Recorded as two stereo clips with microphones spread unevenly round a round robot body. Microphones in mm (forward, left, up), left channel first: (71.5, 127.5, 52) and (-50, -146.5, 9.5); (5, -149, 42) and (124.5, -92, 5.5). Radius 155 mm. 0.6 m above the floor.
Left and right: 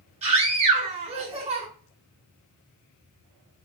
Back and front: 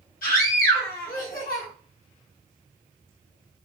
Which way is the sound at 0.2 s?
Straight behind.